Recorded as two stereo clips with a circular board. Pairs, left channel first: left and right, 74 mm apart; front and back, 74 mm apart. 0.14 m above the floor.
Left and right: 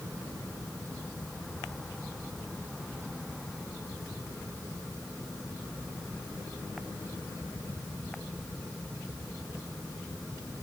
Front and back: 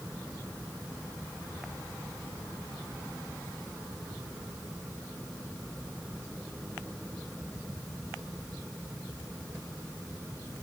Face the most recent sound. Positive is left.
No sound to turn to.